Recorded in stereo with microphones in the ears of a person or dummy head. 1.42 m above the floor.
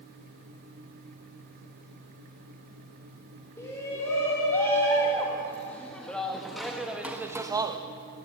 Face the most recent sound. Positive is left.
turn(degrees=-25)  # may be behind; listen again after turning